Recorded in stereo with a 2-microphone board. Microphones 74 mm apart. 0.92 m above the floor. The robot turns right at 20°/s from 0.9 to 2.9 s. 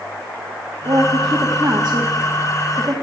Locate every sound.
0.8 s a woman speaking: 65° right (ahead or behind), 1.6 m; by 2.9 s 40° right (ahead or behind), 1.6 m